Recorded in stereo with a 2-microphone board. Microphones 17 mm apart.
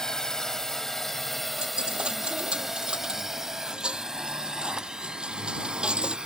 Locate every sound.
0.0 s a drone: 30° left (ahead or behind); by 6.3 s 55° right (ahead or behind)
1.6 s a dropped coin: 60° right (ahead or behind)